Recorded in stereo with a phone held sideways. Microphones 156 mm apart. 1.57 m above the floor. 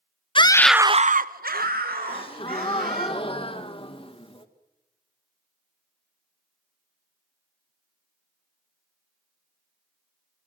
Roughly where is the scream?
Left.